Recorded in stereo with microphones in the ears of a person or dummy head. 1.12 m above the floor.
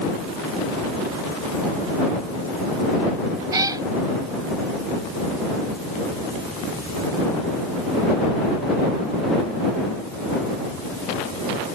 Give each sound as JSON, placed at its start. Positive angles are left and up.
{"t": 3.5, "sound": "a cat meowing", "side_deg": -20}